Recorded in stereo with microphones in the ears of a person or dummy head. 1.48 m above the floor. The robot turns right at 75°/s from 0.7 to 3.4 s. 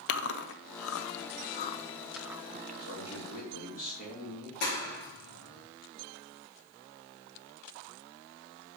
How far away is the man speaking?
About 2.5 m.